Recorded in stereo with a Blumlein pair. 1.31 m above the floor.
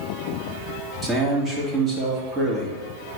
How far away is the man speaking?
About 2.5 m.